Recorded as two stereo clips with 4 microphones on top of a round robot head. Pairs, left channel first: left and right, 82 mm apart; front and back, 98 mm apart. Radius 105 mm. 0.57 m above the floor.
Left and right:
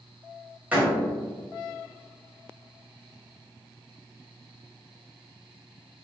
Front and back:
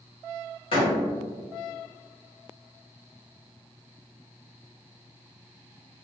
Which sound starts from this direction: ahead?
A door slam, at 0.7 s.